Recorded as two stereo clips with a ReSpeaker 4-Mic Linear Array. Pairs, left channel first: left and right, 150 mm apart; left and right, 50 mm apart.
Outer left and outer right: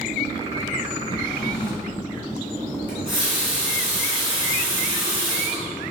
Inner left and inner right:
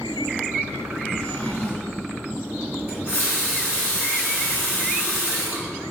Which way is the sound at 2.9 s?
35° right (ahead or behind).